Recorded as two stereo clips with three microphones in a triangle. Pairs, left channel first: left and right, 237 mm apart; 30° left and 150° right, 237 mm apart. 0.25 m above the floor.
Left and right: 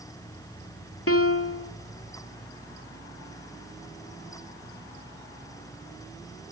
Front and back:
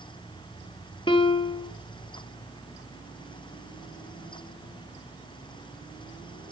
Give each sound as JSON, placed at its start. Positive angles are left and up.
{"t": 1.1, "sound": "a piano", "azimuth_deg": 95, "distance_m": 0.6}